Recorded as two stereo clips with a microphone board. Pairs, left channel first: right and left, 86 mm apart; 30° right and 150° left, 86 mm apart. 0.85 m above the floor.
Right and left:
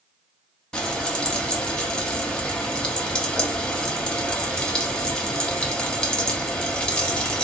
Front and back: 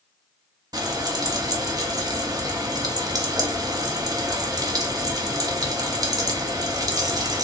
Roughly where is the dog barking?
I don't hear a dog barking.